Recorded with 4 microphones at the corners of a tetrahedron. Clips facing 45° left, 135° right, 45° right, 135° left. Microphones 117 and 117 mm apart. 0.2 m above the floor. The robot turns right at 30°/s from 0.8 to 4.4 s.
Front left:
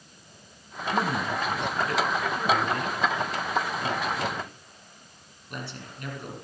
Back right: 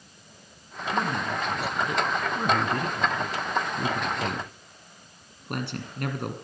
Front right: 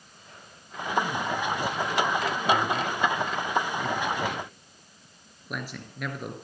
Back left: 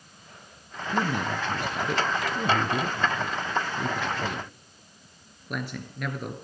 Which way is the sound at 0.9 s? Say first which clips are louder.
Front left 1 dB, even; 125° left.